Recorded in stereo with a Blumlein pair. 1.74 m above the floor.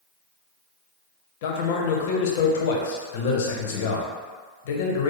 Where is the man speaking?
55° left, 0.7 m.